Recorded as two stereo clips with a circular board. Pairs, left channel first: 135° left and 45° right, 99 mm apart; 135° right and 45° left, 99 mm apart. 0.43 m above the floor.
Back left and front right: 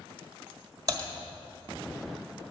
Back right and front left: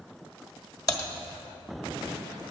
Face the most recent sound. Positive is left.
turn(degrees=-90)